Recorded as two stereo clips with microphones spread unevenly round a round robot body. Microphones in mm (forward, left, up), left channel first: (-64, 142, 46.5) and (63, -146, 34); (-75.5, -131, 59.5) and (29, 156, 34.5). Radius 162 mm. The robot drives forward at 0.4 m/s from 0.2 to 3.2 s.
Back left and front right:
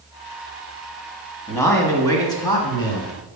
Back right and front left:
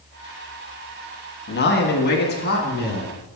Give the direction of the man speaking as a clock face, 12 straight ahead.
5 o'clock.